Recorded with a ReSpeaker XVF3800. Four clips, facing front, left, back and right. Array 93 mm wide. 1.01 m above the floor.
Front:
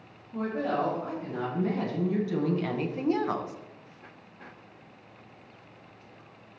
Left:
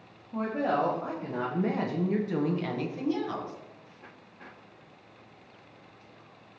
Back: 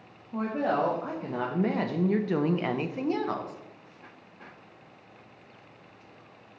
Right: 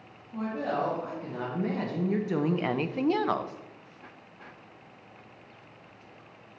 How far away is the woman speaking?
About 1.8 m.